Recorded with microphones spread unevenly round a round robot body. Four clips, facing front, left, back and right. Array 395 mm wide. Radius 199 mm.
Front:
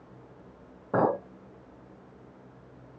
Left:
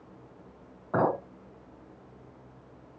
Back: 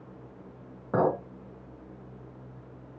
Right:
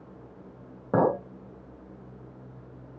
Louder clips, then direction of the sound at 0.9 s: Right 3 dB, even; 95° right.